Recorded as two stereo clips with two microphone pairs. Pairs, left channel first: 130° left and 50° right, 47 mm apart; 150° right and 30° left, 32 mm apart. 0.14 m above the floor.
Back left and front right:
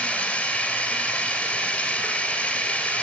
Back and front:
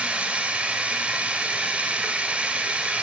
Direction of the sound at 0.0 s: 70° left.